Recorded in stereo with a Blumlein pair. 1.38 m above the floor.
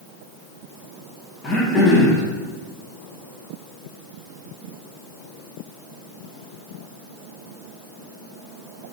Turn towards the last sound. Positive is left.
turn(degrees=15)